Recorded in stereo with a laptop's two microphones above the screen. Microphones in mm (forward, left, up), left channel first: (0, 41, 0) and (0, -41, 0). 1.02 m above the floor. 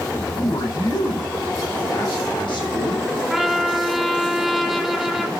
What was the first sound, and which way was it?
A man speaking, 65° left (ahead or behind).